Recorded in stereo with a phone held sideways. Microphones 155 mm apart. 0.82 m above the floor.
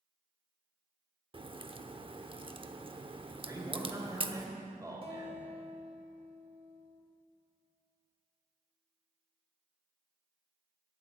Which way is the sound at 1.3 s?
35° right (ahead or behind).